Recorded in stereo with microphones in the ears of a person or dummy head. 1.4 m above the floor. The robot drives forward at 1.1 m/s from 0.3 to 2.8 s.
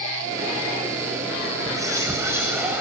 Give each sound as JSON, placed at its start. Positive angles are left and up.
{"t": 1.7, "sound": "whispering", "side_deg": -15, "distance_m": 1.2}